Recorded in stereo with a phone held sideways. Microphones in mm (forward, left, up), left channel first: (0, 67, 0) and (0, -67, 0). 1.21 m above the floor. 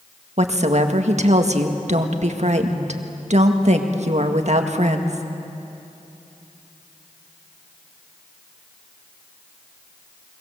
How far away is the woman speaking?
About 1.8 m.